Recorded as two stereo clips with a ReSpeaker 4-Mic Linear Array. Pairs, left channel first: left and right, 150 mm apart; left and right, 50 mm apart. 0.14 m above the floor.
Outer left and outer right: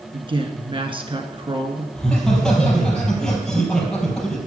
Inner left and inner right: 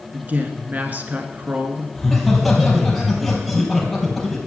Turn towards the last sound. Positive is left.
turn(degrees=5)  # may be behind; listen again after turning